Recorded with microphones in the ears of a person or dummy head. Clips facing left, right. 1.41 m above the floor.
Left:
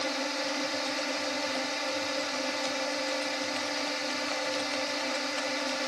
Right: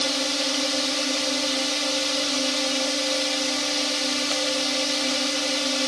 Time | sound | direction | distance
0.0 | a drone | 50° right (ahead or behind) | ?